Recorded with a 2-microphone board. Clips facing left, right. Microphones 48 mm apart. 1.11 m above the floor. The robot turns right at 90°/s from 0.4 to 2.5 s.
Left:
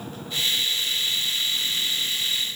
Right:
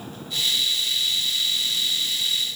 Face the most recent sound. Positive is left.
No sound to turn to.